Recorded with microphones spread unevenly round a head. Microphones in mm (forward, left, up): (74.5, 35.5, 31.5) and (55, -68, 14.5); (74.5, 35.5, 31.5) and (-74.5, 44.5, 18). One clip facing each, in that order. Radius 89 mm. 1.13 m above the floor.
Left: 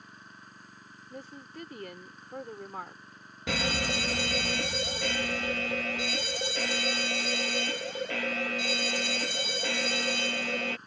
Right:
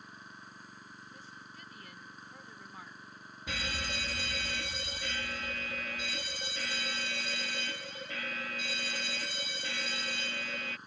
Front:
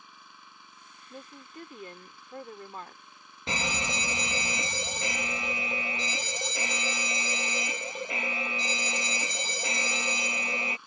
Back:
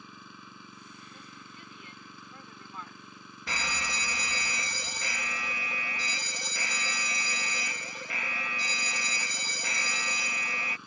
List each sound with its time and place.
0.0 s an engine running: 170° left
1.1 s a woman speaking: 45° left
3.5 s a fire alarm: 65° left